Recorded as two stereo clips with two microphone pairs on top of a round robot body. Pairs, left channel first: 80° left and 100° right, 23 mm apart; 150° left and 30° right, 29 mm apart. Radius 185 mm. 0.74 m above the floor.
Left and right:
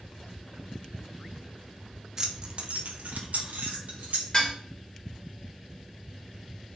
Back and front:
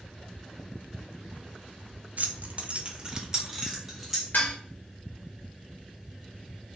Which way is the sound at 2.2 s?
25° right.